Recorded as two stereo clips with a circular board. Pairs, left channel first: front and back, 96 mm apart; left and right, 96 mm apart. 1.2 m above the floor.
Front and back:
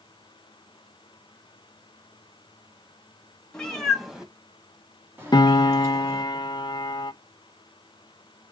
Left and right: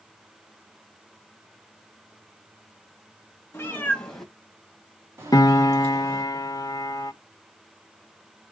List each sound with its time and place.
3.5 s a cat meowing: 70° left, 1.1 m; by 6.2 s 130° right, 1.9 m
5.3 s a piano: 40° left, 0.5 m